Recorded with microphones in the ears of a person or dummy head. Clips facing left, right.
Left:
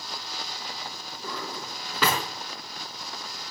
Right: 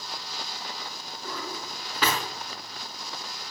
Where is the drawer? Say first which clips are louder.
Even; 70° left (ahead or behind), 4.5 m.